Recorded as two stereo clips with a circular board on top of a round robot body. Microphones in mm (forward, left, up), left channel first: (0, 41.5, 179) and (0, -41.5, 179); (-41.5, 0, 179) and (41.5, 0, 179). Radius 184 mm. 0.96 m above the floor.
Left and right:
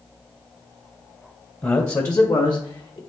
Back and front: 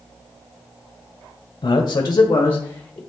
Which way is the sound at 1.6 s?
150° left.